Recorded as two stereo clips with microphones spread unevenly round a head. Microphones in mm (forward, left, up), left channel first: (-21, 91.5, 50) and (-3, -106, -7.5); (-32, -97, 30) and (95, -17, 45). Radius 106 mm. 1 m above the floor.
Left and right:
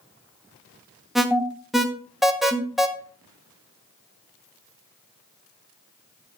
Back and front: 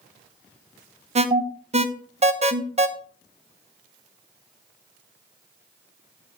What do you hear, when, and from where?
1.1 s an alarm: 10° right, 1.1 m